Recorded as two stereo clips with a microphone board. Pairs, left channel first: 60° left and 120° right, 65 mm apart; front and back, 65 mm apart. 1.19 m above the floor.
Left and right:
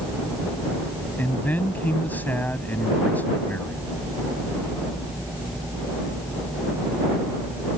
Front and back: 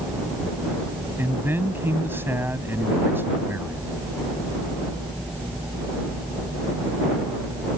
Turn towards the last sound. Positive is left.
turn(degrees=125)